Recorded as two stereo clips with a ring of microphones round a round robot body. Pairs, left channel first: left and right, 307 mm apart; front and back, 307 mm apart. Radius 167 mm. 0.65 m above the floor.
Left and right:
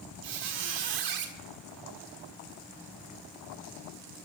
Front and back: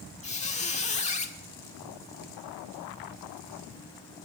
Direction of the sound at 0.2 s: 70° right.